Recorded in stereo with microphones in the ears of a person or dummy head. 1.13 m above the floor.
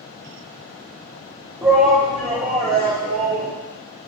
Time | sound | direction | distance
1.6 | a shout | 20° right (ahead or behind) | 2.5 m